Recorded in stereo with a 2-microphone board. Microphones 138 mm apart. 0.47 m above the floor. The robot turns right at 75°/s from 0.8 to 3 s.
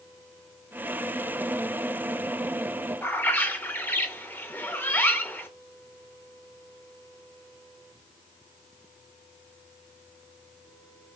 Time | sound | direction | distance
3.0 | a bird | 15° left (ahead or behind) | 0.6 m